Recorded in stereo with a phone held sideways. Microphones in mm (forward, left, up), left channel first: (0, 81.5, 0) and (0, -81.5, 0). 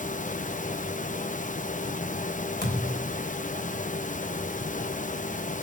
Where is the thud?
70° left (ahead or behind), 3 m.